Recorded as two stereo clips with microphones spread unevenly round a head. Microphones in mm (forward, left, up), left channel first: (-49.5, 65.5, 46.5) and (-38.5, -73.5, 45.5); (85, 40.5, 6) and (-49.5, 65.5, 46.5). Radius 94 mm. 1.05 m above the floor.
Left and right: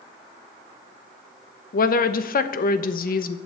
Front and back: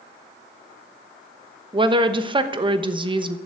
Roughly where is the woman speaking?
Left.